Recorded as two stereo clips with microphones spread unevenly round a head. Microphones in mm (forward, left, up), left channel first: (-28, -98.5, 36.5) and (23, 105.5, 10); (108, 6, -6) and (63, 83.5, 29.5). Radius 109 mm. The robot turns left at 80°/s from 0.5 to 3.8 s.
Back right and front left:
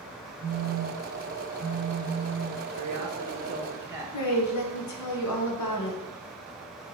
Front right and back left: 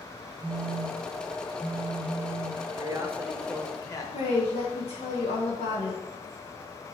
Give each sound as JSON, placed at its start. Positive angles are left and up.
{"t": 0.4, "sound": "a phone buzzing", "azimuth_deg": 115, "distance_m": 2.5}
{"t": 2.7, "sound": "a man speaking", "azimuth_deg": 85, "distance_m": 1.6}
{"t": 4.1, "sound": "a woman speaking", "azimuth_deg": -105, "distance_m": 1.4}